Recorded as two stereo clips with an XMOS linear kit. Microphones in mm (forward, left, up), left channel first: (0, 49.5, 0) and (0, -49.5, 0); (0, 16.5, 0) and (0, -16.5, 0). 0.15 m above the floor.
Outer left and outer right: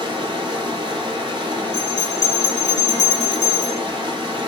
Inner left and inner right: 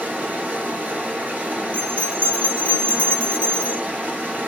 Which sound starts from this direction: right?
Running water, at 0.0 s.